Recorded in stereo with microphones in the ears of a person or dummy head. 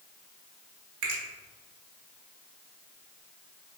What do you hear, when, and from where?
1.0 s a finger snap: 60° right (ahead or behind), 1.0 m